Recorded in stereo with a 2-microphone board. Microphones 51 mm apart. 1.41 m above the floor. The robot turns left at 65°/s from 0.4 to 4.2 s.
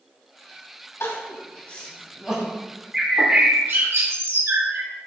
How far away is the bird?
About 1.5 m.